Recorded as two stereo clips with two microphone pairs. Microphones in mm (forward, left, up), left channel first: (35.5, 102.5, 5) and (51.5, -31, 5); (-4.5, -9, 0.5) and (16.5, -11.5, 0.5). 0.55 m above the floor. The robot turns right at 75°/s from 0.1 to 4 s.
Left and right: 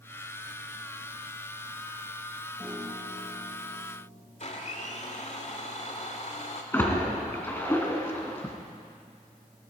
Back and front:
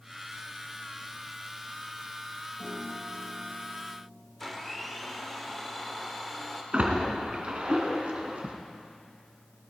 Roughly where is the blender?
Left.